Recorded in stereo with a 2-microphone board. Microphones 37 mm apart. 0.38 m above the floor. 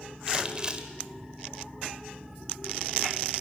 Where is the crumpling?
25° right (ahead or behind), 1.7 m.